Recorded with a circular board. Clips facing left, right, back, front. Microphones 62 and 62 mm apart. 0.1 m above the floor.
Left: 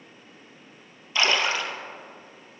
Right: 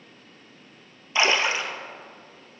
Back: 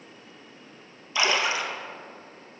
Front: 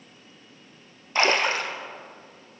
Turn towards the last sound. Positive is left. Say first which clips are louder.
# right 1 dB, front 2 dB
turn(degrees=-25)